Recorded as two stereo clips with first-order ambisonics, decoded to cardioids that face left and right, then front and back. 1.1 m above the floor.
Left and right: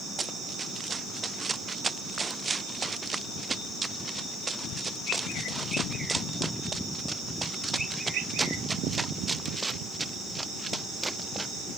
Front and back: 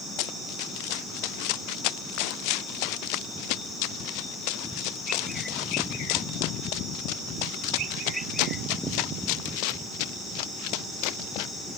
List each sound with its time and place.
0.2 s running footsteps: 15° right; by 11.5 s 5° right